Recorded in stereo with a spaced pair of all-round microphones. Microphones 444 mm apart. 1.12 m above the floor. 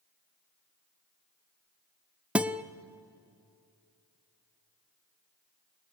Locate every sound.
2.4 s a guitar: 5° right (ahead or behind), 0.6 m